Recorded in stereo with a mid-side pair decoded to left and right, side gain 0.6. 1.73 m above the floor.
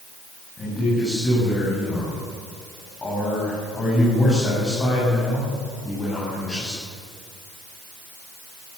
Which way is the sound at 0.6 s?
25° left.